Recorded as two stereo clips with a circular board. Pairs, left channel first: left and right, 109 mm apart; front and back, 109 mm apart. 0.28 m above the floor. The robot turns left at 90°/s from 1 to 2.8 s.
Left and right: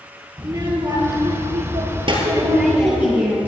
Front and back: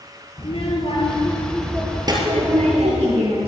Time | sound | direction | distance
0.4 | a child speaking | 30° right | 4 m
2.1 | a woman speaking | 100° right | 4 m